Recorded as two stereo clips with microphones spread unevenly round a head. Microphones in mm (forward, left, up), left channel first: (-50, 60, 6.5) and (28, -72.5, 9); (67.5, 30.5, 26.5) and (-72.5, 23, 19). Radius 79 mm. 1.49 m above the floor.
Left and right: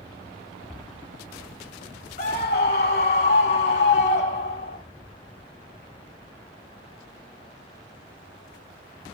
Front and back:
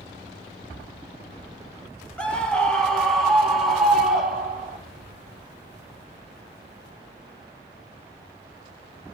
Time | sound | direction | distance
2.2 | a scream | 85° left | 2.5 m